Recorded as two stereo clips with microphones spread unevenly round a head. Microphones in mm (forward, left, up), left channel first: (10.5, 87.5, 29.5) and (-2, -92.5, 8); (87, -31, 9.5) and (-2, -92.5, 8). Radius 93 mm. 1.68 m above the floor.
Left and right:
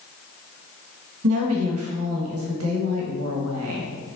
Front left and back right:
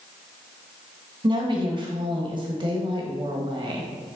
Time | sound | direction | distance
1.2 | a woman speaking | 105° right | 1.8 m